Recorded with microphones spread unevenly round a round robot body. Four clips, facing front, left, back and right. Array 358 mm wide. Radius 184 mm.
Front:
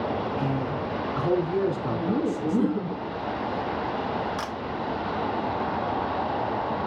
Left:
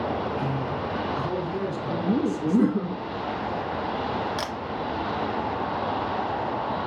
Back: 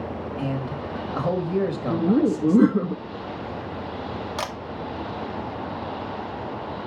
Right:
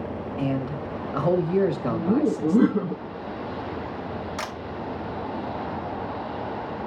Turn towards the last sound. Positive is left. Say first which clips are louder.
# left 2 dB, back 1 dB
turn(degrees=135)